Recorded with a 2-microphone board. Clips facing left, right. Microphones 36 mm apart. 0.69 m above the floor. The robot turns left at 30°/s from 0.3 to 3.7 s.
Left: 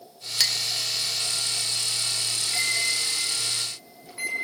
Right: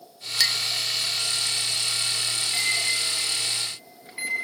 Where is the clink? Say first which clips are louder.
Right 2 dB; 20° right (ahead or behind), 0.5 m; by 0.6 s 30° right (ahead or behind), 0.5 m.